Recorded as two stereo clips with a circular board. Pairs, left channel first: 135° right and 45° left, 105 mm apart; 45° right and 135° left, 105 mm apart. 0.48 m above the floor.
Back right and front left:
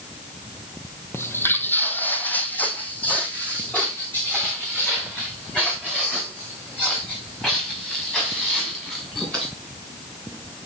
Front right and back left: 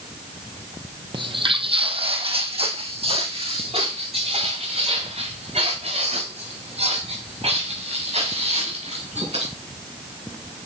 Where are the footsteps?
160° left, 0.8 m; by 9.5 s 145° left, 6.5 m.